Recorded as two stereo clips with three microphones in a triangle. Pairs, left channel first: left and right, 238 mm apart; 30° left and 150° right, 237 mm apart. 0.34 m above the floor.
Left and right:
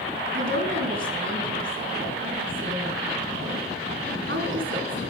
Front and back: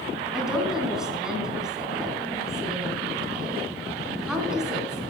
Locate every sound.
0.3 s a woman speaking: 60° right, 4 m